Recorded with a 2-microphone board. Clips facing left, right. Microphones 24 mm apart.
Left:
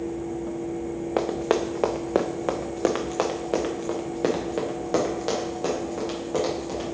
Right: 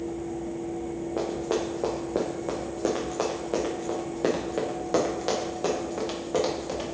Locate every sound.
1.2 s running footsteps: 85° left, 1.1 m; by 6.9 s 10° right (ahead or behind), 3 m